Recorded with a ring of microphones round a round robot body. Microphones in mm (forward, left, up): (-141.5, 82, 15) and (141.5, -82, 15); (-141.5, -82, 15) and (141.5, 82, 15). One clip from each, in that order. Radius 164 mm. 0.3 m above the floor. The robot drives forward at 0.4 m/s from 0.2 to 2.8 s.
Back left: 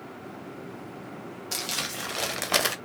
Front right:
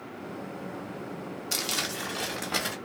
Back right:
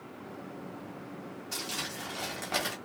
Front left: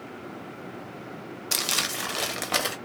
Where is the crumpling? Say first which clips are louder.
Front right 1 dB, front left 10 dB; 45° left, 0.6 m; by 2.8 s 110° left, 0.5 m.